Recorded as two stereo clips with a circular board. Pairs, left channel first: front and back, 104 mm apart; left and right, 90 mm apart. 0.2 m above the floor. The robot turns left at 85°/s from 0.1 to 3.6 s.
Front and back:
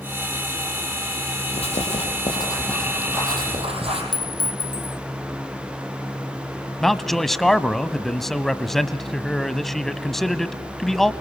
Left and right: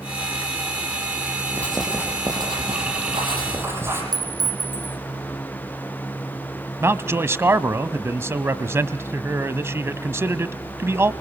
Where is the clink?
45° right, 1.8 m.